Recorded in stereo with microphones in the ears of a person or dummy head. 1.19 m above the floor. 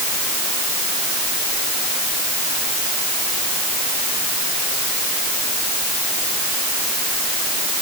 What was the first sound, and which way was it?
Only background noise.